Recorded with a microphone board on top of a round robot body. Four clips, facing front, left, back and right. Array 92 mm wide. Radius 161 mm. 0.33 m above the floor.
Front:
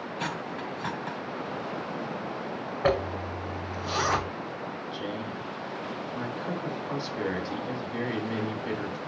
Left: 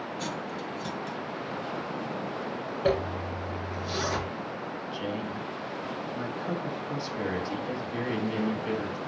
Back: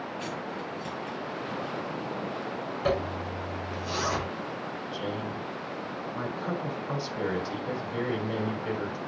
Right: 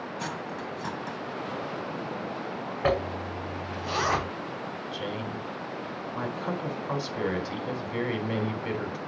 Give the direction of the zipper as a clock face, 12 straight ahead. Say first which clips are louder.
Even, front 3 dB; 2 o'clock.